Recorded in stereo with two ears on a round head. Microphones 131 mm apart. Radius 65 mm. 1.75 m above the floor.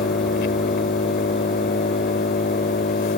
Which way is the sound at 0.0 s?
70° left (ahead or behind).